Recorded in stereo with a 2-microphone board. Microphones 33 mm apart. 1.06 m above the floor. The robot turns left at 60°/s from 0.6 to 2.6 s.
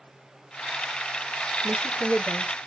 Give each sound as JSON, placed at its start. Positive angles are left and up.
{"t": 1.6, "sound": "a woman speaking", "azimuth_deg": -45, "distance_m": 1.3}